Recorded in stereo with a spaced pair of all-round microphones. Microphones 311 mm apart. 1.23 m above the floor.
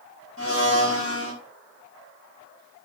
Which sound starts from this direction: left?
A blender, at 0.4 s.